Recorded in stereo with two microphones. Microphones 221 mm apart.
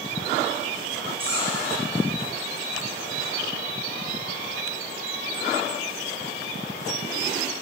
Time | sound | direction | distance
1.2 | a squeak | 80° left | 8 m